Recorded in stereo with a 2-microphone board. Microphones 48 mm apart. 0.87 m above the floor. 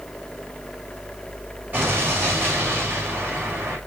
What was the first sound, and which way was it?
An explosion, 40° right (ahead or behind).